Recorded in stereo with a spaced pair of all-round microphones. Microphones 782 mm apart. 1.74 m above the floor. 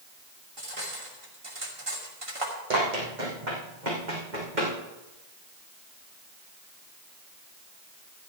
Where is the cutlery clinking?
40° right (ahead or behind), 2.5 m.